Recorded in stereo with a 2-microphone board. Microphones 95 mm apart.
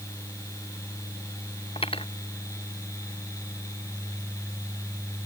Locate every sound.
1.8 s cutlery clinking: 75° left (ahead or behind)